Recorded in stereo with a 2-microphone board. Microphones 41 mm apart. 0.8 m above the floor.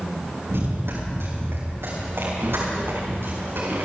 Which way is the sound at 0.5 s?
85° right.